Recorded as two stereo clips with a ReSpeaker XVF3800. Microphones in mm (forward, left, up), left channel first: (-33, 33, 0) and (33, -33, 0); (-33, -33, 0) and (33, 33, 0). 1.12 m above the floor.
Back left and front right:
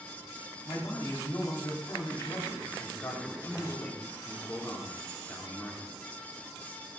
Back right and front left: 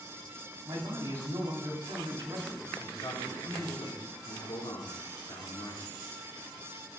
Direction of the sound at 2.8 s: 150° right.